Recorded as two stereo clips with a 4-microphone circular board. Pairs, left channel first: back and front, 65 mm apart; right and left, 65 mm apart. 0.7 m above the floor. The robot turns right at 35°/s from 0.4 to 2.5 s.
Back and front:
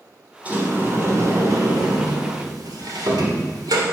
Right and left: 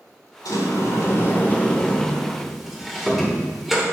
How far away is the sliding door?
About 1.7 m.